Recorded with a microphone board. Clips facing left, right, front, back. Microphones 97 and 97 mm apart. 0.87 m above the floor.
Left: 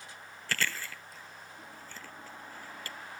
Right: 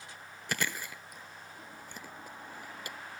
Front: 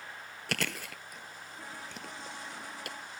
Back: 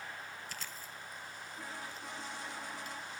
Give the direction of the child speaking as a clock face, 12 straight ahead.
I don't hear a child speaking.